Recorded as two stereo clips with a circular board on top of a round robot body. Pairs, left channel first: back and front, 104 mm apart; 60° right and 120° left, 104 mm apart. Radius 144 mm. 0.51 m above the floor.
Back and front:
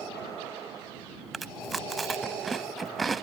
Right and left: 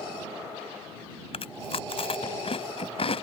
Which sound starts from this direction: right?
Chewing, at 1.3 s.